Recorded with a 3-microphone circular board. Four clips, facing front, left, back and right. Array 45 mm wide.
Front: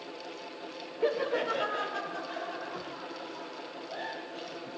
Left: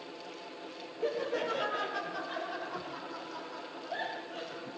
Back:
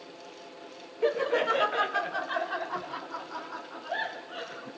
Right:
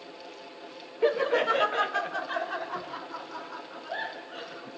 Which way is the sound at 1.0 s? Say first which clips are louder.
Right 9 dB, back 3 dB; 100° right.